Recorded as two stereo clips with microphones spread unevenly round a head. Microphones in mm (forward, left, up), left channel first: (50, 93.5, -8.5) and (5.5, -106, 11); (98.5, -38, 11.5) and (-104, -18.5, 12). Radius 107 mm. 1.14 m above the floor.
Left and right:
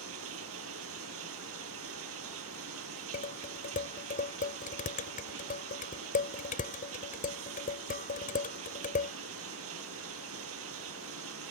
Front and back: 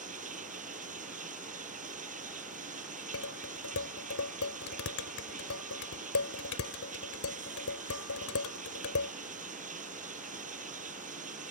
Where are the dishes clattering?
25° left.